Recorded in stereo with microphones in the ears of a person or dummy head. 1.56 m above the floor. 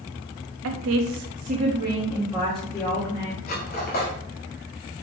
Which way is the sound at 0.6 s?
85° right.